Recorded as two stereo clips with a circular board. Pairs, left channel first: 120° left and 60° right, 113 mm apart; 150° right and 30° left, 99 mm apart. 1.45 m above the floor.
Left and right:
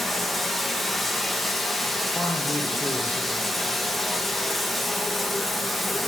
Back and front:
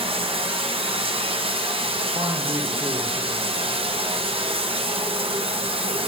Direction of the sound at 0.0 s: 30° left.